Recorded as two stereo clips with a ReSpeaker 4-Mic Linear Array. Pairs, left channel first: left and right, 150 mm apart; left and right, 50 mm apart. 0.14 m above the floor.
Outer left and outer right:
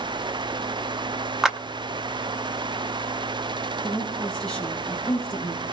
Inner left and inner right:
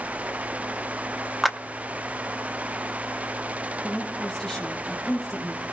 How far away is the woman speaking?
About 6 m.